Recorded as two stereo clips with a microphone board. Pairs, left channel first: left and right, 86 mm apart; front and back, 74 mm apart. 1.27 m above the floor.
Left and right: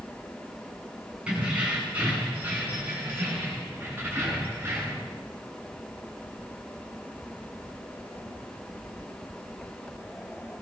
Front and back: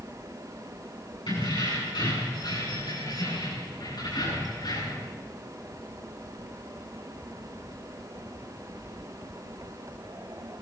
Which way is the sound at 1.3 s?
15° right.